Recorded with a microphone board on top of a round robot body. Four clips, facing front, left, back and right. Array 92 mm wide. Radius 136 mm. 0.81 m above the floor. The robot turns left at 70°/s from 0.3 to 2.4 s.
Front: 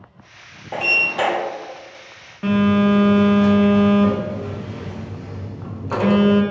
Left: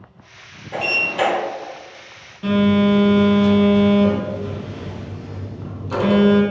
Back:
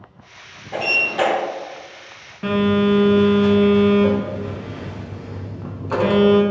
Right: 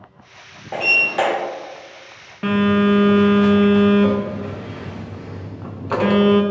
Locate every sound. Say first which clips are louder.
0.7 s a sliding door: right 2 dB, even; 50° right, 0.5 m; by 1.3 s 90° right, 0.5 m
2.4 s a phone buzzing: even, front 1 dB; 80° right, 0.7 m